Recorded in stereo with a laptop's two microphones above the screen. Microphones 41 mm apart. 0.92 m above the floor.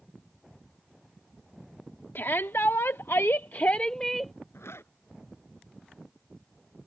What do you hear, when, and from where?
2.1 s a shout: 60° left (ahead or behind); by 4.3 s centre (ahead or behind)
4.5 s a zipper: 90° left